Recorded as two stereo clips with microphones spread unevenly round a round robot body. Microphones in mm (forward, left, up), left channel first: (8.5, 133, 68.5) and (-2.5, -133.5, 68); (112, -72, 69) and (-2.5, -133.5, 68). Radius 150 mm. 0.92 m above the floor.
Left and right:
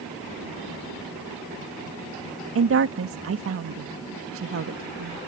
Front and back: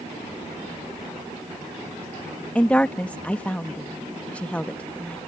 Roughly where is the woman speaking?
Ahead right.